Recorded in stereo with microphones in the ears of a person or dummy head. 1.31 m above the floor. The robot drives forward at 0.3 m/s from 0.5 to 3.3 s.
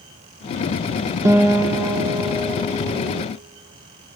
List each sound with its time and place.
1.2 s a guitar: 10° right (ahead or behind), 0.9 m; by 3.3 s 5° right (ahead or behind), 1.5 m